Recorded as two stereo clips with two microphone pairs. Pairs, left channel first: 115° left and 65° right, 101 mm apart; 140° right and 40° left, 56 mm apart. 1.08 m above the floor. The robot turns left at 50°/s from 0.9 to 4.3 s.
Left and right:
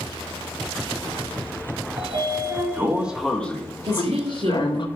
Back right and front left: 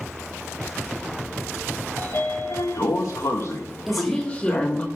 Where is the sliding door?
90° right, 1.3 m; by 4.9 s 150° left, 1.3 m.